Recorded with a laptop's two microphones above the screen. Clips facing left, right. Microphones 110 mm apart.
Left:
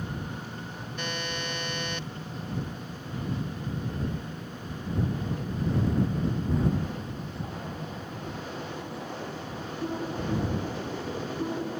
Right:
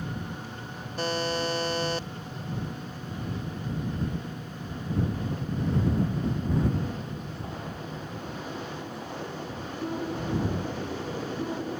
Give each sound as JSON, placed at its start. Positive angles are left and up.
{"t": 1.0, "sound": "a buzzer", "side_deg": -35}